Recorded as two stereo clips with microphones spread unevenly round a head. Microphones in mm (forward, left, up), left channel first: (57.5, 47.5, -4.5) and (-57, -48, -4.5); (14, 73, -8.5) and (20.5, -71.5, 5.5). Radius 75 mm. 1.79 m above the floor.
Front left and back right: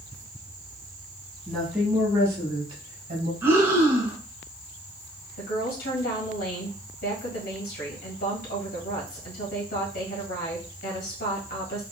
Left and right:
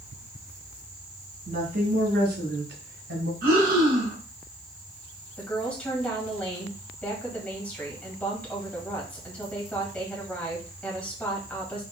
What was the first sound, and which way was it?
A woman speaking, 50° right.